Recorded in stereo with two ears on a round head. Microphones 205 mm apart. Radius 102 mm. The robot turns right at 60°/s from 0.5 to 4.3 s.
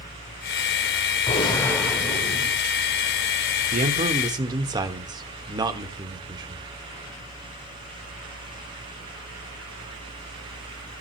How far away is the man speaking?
About 1.2 m.